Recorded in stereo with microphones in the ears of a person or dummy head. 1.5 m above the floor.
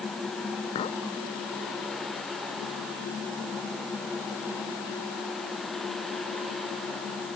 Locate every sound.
0.8 s a clink: 35° left (ahead or behind)